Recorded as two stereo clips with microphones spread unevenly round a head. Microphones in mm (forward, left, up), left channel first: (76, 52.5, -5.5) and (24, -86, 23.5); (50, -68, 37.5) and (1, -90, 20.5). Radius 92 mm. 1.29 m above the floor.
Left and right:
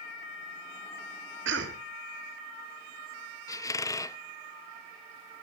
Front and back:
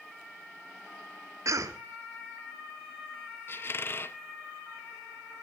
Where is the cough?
130° right, 2.5 m.